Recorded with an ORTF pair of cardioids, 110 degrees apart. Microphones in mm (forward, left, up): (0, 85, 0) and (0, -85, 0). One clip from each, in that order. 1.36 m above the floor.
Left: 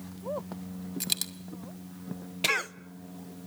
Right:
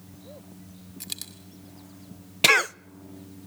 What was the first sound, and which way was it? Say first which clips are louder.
A dropped coin: left 6 dB; 30° left.